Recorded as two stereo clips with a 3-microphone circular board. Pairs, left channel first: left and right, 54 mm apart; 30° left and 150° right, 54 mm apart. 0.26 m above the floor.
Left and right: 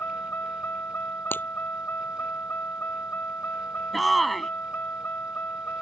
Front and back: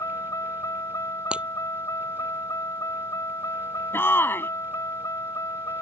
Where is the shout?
Straight ahead.